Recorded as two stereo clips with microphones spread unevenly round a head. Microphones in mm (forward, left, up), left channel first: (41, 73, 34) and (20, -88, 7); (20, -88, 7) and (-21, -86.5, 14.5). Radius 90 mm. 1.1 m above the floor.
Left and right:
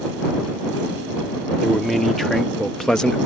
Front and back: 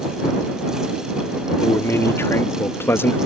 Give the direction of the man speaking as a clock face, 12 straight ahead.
12 o'clock.